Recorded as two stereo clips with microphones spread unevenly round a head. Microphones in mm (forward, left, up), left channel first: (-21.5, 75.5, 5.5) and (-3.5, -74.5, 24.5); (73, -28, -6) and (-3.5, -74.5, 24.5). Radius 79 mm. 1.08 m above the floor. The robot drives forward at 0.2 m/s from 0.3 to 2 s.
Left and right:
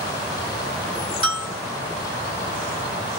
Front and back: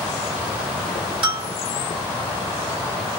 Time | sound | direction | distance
1.2 | a bell | 140° right | 1.3 m